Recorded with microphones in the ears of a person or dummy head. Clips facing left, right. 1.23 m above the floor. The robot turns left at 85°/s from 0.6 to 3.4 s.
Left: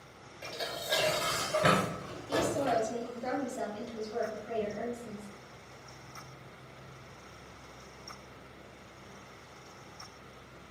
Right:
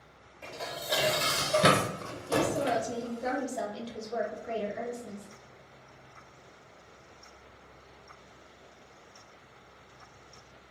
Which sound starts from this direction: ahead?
A woman speaking, at 2.3 s.